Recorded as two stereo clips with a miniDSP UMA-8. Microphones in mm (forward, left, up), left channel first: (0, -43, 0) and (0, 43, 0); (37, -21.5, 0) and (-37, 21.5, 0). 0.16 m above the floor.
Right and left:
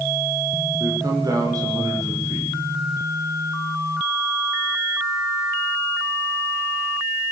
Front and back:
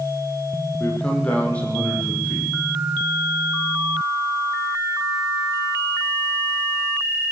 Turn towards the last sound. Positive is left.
turn(degrees=45)